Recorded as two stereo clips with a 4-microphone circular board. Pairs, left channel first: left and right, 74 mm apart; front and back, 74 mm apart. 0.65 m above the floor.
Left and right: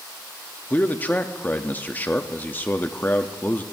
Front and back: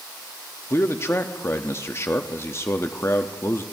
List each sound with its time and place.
0.7 s a man speaking: 35° left, 0.6 m